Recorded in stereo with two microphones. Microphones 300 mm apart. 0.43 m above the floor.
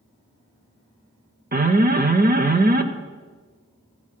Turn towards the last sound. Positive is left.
turn(degrees=-30)  # may be behind; listen again after turning